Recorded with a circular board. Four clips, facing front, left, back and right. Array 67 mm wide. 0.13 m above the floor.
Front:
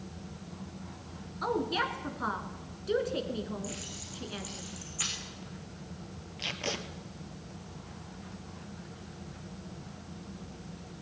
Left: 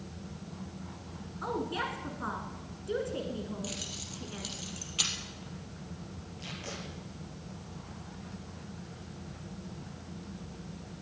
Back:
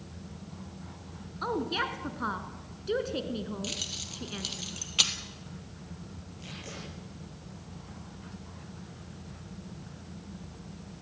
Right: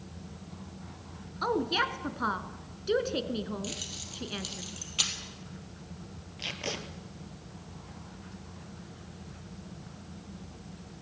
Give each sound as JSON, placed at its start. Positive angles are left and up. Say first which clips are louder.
{"t": 1.4, "sound": "a woman speaking", "louder": "right 5 dB, even", "azimuth_deg": -100, "distance_m": 1.8}
{"t": 3.6, "sound": "keys jangling", "louder": "even, back 1 dB", "azimuth_deg": -170, "distance_m": 2.5}
{"t": 6.4, "sound": "tape being pulled", "louder": "right 6 dB, front 8 dB", "azimuth_deg": -40, "distance_m": 2.5}